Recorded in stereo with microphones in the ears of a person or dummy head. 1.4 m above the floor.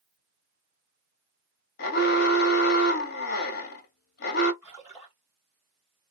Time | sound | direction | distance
1.8 | an alarm | 55° left (ahead or behind) | 0.7 m
4.6 | a splash | 15° right (ahead or behind) | 0.9 m